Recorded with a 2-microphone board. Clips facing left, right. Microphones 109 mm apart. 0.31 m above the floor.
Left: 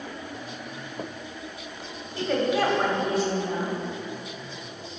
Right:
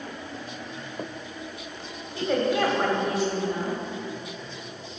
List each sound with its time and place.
2.1 s a woman speaking: 10° right (ahead or behind), 1.8 m; by 3.8 s 50° left (ahead or behind), 2 m